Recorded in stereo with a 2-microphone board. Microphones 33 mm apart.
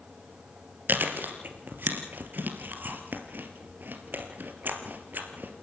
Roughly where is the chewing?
Right.